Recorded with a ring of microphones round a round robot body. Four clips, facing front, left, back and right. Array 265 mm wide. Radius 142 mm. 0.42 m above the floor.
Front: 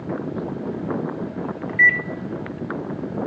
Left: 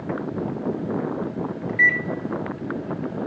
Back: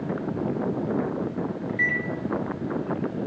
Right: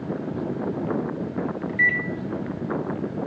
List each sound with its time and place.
1.7 s a microwave: 20° left, 0.7 m